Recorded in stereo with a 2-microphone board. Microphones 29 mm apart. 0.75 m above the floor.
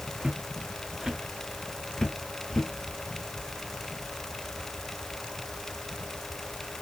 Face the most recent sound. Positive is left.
turn(degrees=25)  # may be behind; listen again after turning